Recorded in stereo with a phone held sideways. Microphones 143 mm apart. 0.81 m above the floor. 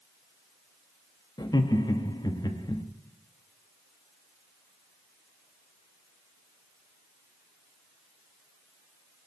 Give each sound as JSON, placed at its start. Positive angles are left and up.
{"t": 1.4, "sound": "laughter", "side_deg": 30, "distance_m": 0.8}